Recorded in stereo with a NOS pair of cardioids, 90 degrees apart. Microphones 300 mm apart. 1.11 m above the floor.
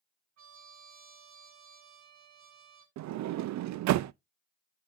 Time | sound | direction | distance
0.4 | a trumpet | 65° right | 8 m
3.0 | a sliding door | 70° right | 0.5 m